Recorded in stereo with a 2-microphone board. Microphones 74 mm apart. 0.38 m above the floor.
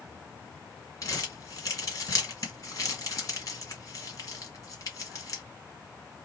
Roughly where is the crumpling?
Left.